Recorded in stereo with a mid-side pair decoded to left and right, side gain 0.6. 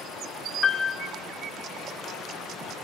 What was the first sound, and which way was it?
A piano, 25° left.